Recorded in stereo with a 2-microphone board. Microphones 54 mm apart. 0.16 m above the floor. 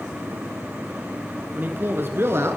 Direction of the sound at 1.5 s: 40° right (ahead or behind).